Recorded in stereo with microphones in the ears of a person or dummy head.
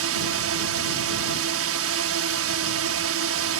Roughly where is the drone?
Right.